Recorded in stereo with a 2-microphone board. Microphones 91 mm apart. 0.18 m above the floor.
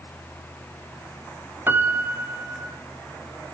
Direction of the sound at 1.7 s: 25° right (ahead or behind).